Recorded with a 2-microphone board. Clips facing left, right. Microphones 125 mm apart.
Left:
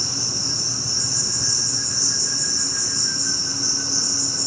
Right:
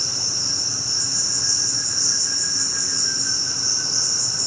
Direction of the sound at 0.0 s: 25° right (ahead or behind).